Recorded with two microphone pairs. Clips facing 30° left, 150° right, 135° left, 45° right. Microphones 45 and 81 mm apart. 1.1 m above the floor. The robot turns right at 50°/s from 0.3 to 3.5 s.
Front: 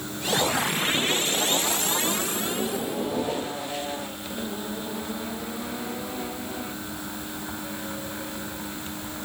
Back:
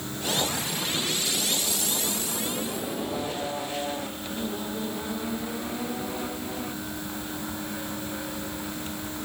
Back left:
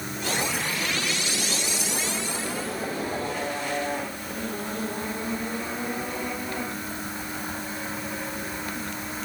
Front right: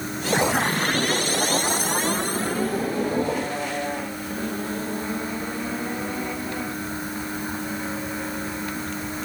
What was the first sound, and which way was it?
Only background noise.